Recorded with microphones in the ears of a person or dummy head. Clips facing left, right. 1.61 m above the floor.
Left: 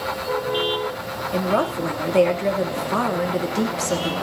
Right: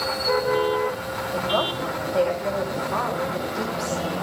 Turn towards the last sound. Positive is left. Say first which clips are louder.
# left 4 dB
turn(degrees=40)  # may be behind; listen again after turning